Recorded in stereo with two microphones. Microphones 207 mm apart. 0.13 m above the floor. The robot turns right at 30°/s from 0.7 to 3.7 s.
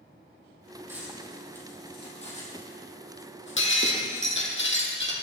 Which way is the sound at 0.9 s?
10° right (ahead or behind).